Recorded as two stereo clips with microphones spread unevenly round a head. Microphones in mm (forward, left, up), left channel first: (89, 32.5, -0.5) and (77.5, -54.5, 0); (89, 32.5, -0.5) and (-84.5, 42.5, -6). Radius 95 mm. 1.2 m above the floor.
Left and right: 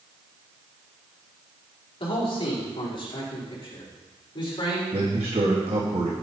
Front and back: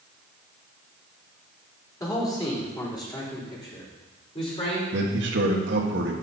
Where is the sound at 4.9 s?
150° right, 1.9 m.